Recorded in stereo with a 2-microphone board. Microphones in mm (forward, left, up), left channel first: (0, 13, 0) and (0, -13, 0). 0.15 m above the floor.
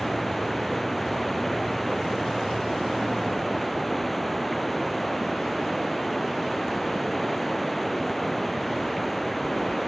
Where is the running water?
5° left (ahead or behind).